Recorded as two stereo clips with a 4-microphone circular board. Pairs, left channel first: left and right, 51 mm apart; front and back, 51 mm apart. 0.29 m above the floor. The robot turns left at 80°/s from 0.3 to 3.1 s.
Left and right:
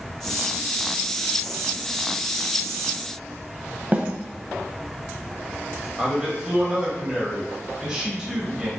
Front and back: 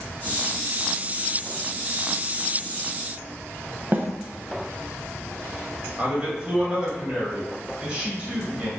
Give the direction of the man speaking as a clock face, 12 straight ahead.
5 o'clock.